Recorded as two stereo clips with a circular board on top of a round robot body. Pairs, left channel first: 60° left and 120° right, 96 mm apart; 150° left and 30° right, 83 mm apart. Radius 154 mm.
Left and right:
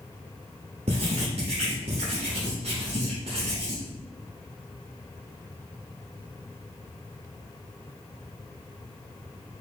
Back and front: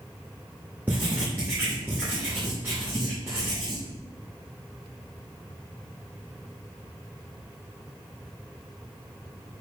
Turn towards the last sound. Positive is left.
turn(degrees=-105)